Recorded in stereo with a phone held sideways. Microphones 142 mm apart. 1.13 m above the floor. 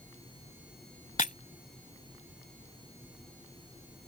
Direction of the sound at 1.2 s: 65° left (ahead or behind).